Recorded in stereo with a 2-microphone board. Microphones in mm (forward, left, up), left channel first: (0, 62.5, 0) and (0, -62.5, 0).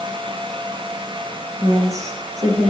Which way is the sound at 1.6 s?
25° right (ahead or behind).